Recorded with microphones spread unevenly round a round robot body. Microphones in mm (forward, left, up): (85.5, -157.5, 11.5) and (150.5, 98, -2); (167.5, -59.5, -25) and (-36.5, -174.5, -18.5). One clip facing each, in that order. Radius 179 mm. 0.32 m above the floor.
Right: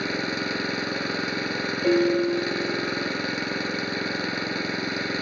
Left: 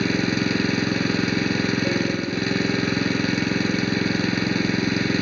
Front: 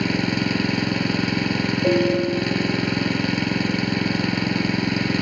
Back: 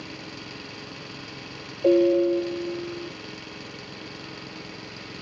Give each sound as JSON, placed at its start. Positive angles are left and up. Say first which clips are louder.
{"t": 0.0, "sound": "an engine running", "louder": "left 7 dB, front 18 dB", "azimuth_deg": 30}
{"t": 1.8, "sound": "a piano", "louder": "right 4 dB, back 2 dB", "azimuth_deg": -75}